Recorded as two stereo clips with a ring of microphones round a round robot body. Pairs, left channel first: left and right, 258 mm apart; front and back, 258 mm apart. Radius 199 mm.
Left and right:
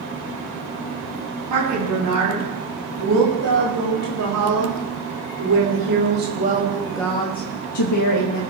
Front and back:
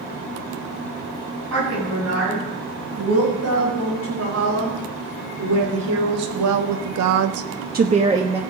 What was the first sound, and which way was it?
A woman speaking, 125° right.